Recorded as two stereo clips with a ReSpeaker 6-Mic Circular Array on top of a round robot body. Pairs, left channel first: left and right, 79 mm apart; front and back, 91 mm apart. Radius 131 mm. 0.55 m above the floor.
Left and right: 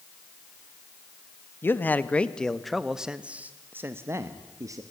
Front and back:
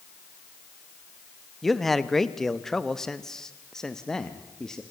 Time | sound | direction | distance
1.6 | a man speaking | 85° left | 1.3 m